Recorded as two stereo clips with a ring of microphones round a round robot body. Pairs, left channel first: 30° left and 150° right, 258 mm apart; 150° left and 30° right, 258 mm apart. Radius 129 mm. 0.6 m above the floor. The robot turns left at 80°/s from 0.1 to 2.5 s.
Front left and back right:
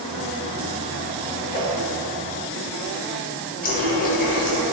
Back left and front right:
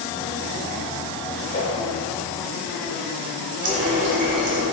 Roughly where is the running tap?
Ahead right.